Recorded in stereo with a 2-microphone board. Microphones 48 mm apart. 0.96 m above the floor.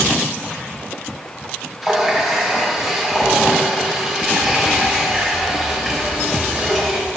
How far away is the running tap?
About 1.8 m.